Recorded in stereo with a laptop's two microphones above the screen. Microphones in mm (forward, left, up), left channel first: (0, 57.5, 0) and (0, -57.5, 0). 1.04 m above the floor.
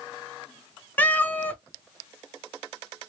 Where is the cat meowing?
15° left (ahead or behind), 0.9 m.